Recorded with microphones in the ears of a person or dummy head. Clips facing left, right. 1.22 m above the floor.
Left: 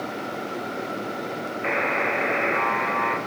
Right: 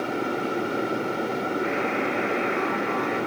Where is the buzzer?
70° left (ahead or behind), 0.6 m.